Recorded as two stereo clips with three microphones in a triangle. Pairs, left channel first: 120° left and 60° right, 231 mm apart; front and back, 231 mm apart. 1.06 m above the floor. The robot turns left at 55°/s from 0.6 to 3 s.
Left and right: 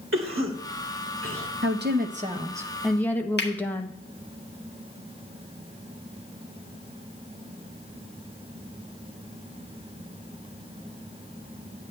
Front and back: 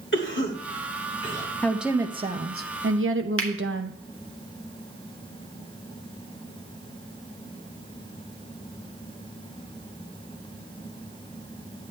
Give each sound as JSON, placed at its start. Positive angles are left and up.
{"t": 0.1, "sound": "a cough", "azimuth_deg": -35, "distance_m": 2.5}
{"t": 1.6, "sound": "a woman speaking", "azimuth_deg": -85, "distance_m": 1.1}
{"t": 3.4, "sound": "a finger snap", "azimuth_deg": 160, "distance_m": 1.4}